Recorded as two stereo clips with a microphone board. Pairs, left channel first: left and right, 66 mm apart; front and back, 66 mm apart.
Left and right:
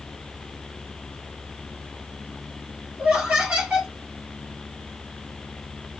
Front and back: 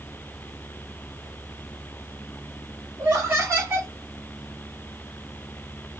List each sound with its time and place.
3.0 s laughter: 155° right, 1.3 m